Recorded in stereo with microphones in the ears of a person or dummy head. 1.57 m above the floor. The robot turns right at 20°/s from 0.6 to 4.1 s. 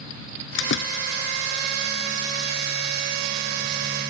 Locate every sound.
0.6 s a door slam: 70° left (ahead or behind); by 1.0 s 80° left